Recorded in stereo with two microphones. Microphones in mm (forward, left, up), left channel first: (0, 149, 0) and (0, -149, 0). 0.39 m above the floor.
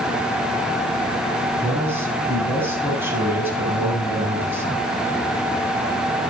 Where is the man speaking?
5° right (ahead or behind), 7 m.